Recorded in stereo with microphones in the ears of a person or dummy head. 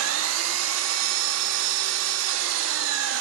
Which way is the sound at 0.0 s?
80° right.